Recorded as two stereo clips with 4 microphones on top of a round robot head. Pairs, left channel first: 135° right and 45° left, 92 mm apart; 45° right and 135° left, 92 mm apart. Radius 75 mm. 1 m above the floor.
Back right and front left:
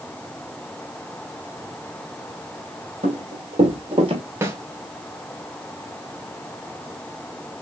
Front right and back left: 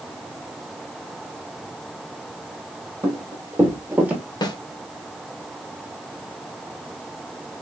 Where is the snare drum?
15° right, 1.1 m.